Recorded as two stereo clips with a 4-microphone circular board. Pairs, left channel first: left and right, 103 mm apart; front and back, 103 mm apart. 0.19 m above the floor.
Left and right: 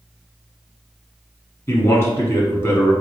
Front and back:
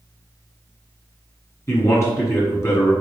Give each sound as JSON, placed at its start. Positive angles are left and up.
{"t": 1.7, "sound": "a man speaking", "azimuth_deg": 45, "distance_m": 1.4}